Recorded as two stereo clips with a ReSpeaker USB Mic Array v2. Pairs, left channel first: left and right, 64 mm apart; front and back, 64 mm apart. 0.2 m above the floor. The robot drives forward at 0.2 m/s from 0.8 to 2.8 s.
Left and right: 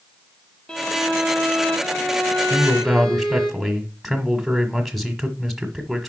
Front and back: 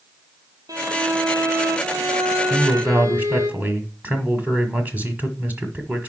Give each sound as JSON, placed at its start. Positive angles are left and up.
{"t": 0.7, "sound": "a violin", "azimuth_deg": 165, "distance_m": 1.3}
{"t": 2.5, "sound": "a man speaking", "azimuth_deg": 180, "distance_m": 1.3}